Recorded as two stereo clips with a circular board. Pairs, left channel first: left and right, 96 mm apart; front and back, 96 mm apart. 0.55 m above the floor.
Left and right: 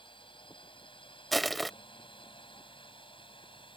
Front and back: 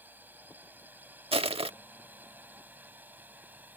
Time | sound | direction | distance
0.0 | a drone | 110° left | ?
1.3 | crushing | straight behind | ?